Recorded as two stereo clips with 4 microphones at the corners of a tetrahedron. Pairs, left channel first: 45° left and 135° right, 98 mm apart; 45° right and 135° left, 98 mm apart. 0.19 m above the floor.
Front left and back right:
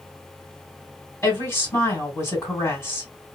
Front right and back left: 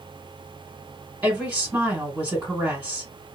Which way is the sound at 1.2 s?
75° left.